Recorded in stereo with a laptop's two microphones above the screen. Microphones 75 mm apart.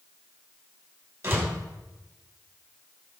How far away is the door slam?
About 5 m.